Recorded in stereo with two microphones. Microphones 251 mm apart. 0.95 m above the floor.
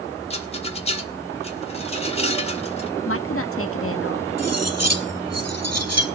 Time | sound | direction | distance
0.3 | a rattle | 25° left (ahead or behind) | 1.8 m
3.1 | a woman speaking | 60° left (ahead or behind) | 1.4 m
4.4 | cutlery clinking | 80° right | 1.6 m